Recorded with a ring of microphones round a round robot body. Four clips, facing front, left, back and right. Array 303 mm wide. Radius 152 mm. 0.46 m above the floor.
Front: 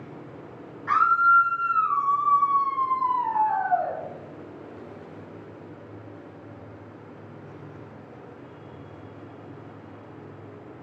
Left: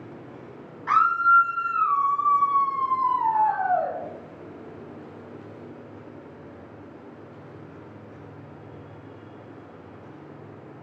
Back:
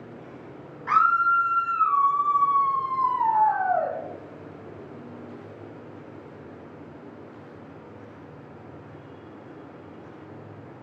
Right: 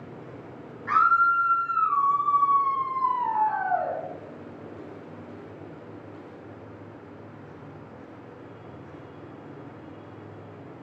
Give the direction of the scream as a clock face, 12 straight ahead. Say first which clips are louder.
Left 2 dB, front 1 dB; 8 o'clock.